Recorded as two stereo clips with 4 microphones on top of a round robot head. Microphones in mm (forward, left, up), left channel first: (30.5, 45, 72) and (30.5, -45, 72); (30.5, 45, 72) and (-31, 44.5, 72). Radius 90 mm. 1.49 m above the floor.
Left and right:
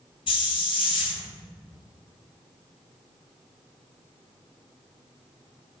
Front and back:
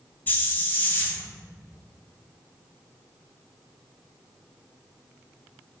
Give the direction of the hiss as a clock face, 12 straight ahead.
10 o'clock.